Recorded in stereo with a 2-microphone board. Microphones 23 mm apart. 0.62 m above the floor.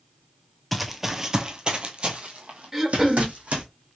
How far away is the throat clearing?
About 1.0 m.